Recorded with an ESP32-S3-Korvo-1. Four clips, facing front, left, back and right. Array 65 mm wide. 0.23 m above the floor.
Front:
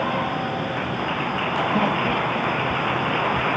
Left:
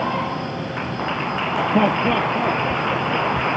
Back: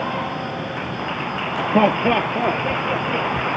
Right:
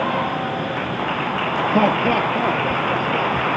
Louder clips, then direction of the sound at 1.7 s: Right 1 dB, back 9 dB; 165° right.